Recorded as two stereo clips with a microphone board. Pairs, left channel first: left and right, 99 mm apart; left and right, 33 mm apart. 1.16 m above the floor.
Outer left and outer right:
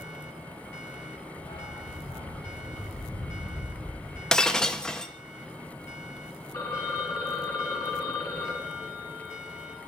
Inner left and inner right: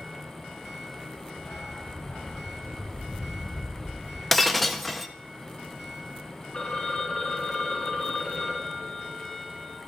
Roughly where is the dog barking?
Left.